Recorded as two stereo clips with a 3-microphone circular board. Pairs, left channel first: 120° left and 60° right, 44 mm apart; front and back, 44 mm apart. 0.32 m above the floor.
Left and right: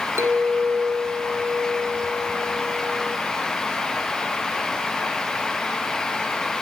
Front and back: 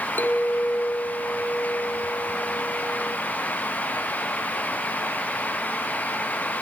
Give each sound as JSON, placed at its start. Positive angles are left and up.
{"t": 0.2, "sound": "a clink", "azimuth_deg": -45, "distance_m": 3.0}